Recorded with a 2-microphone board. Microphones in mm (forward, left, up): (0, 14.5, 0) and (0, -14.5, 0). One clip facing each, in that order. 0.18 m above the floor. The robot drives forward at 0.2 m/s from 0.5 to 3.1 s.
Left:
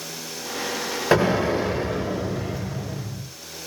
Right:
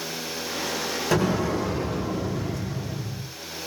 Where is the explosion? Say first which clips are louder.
Left 5 dB; 35° left (ahead or behind), 1.5 m; by 3.3 s 30° left (ahead or behind), 1.8 m.